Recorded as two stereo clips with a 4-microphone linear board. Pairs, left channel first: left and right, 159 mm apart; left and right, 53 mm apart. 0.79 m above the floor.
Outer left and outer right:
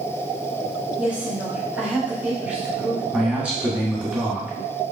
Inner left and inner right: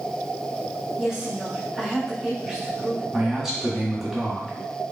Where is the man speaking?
5° right (ahead or behind), 1.6 m.